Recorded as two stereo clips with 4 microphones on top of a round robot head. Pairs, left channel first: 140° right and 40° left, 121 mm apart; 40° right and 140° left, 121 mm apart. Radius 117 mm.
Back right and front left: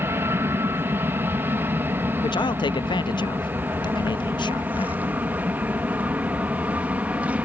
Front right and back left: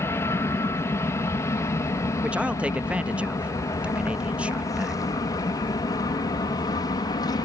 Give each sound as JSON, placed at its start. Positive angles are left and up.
{"t": 0.0, "sound": "an aircraft", "azimuth_deg": 0}
{"t": 2.2, "sound": "a man speaking", "azimuth_deg": -145}